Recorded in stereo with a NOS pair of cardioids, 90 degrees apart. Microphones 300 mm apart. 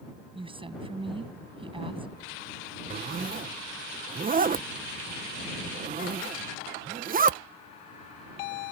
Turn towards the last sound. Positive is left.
turn(degrees=-30)